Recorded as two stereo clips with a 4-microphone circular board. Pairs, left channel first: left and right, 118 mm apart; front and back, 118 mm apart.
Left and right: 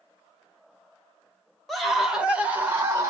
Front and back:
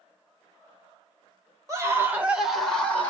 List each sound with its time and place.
1.7 s a scream: straight behind, 1.0 m; by 3.1 s 55° right, 1.0 m